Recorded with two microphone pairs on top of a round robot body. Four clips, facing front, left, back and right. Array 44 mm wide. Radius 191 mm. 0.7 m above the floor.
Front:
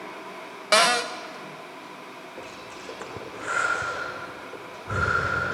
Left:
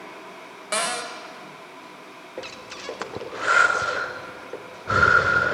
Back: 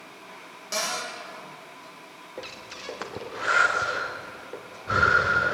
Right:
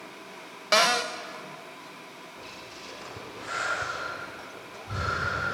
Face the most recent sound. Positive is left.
turn(degrees=115)